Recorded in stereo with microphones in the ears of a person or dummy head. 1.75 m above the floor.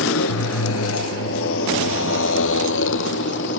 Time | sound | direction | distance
0.0 | a motorcycle | 70° left (ahead or behind) | ?